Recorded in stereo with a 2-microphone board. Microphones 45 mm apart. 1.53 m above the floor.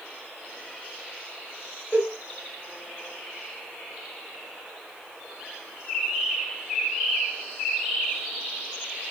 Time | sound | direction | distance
1.9 | a cowbell | 20° left (ahead or behind) | 2 m